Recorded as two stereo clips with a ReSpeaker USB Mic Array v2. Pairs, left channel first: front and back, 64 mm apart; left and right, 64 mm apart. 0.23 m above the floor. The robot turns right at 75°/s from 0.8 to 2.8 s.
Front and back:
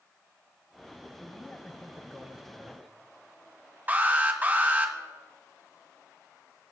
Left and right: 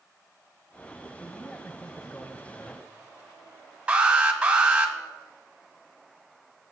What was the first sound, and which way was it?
A man speaking, 25° left.